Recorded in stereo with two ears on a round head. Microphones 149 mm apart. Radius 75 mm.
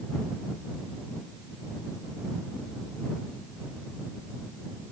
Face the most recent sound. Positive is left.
No sound to turn to.